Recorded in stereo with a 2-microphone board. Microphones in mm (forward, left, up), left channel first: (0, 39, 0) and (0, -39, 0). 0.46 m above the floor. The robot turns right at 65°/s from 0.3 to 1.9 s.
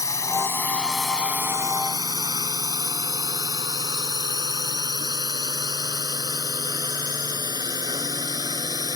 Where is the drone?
45° left (ahead or behind); by 9.0 s 60° right (ahead or behind).